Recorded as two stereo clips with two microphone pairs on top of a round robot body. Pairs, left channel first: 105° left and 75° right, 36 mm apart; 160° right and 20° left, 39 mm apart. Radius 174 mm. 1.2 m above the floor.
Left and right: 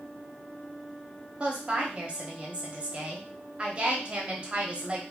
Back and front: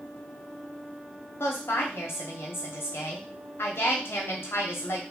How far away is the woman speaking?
About 0.8 m.